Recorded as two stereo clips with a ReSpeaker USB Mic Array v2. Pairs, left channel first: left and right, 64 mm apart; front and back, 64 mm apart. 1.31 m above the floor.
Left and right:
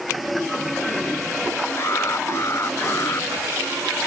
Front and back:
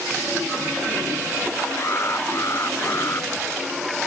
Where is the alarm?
45° left.